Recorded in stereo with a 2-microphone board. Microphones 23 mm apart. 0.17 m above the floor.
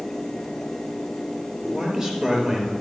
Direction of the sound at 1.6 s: 30° right (ahead or behind).